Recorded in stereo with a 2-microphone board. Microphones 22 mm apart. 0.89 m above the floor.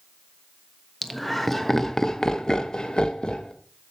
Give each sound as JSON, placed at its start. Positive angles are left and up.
{"t": 1.0, "sound": "laughter", "side_deg": 5, "distance_m": 1.3}